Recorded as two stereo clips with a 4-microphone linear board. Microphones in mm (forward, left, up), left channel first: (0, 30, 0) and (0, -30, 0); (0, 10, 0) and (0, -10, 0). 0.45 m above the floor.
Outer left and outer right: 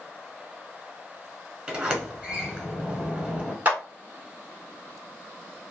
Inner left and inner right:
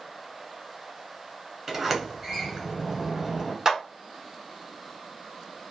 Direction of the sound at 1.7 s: 20° right (ahead or behind).